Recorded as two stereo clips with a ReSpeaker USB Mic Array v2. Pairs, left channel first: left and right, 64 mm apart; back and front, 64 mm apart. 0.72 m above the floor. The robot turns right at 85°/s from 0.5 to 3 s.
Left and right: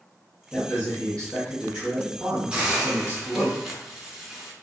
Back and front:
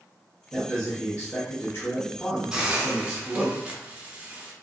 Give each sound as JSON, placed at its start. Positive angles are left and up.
{"t": 0.5, "sound": "a man speaking", "azimuth_deg": 80, "distance_m": 1.0}
{"t": 2.5, "sound": "a hiss", "azimuth_deg": -60, "distance_m": 0.5}